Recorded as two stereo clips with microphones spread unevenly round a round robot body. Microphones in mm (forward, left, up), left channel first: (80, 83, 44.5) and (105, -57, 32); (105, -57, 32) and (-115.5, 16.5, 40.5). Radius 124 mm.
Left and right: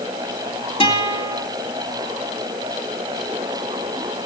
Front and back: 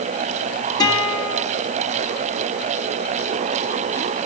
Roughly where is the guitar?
Ahead left.